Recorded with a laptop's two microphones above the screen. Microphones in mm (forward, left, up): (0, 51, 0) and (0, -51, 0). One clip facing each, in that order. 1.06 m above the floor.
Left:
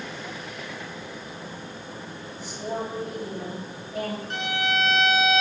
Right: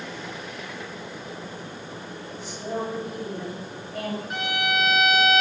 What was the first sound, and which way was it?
A fan, 65° right (ahead or behind).